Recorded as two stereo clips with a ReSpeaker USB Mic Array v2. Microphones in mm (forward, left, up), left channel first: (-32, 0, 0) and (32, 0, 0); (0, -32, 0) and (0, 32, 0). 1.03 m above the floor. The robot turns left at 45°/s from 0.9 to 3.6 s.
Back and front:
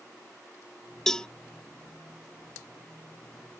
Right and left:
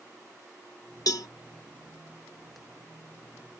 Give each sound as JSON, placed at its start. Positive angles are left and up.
{"t": 1.1, "sound": "a cowbell", "azimuth_deg": -95}